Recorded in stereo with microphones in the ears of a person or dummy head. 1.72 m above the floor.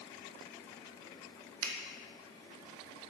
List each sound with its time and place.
1.6 s a finger snap: 75° right (ahead or behind), 1.2 m